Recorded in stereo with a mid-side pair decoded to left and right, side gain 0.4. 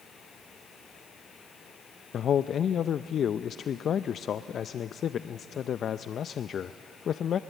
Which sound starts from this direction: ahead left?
A man speaking, at 2.1 s.